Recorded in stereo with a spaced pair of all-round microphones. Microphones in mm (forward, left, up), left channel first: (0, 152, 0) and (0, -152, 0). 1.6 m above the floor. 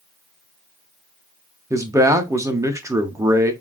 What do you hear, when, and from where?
1.7 s a man speaking: 10° right (ahead or behind), 0.7 m